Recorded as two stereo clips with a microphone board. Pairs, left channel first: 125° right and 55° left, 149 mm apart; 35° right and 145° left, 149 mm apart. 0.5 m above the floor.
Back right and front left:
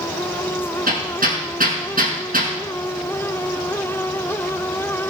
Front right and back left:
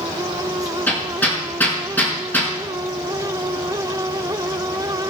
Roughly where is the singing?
No singing in this recording.